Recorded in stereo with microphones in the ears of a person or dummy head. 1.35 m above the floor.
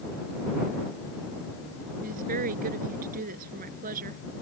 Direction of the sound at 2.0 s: 50° right (ahead or behind).